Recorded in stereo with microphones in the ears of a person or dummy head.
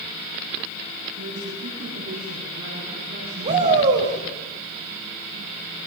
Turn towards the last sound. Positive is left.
turn(degrees=-40)  # may be behind; listen again after turning